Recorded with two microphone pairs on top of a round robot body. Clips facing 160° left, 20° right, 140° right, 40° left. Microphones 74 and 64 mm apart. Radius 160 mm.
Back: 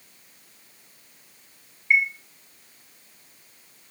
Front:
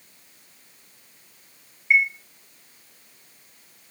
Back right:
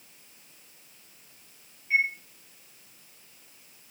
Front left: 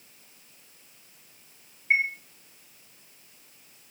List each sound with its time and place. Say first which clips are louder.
1.9 s a chime: front 1 dB, front left 1 dB; 55° left, 5 m